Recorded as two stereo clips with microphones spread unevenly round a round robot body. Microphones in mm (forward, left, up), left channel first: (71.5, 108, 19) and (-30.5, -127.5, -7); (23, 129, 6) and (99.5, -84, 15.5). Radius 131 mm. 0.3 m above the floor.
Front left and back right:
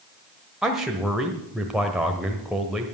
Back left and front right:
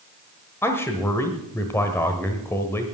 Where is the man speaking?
170° left, 1.1 m.